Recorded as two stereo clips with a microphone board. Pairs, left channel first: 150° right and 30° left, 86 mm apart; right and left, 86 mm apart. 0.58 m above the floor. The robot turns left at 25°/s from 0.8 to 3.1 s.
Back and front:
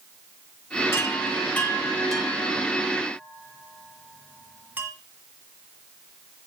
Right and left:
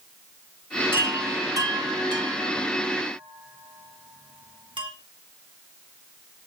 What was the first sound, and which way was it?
A chime, 155° left.